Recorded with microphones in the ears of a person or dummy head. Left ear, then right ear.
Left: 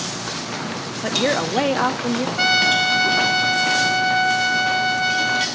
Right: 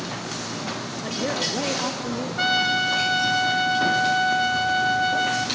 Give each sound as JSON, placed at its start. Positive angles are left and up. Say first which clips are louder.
{"t": 1.0, "sound": "a woman speaking", "louder": "left 6 dB", "side_deg": 50, "distance_m": 0.6}
{"t": 2.4, "sound": "a trumpet", "louder": "left 4 dB", "side_deg": 20, "distance_m": 0.6}